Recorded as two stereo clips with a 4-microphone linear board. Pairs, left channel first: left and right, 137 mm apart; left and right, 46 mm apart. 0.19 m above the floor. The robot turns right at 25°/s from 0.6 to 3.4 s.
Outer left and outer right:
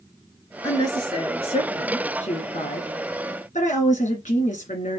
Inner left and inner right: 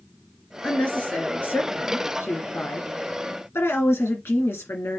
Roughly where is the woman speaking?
Ahead left.